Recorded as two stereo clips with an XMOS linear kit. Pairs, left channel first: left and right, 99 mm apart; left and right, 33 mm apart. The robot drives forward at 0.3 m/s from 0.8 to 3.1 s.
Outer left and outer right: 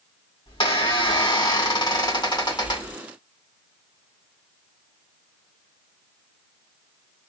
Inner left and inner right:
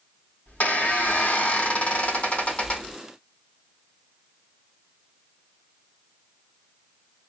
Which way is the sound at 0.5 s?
60° left (ahead or behind).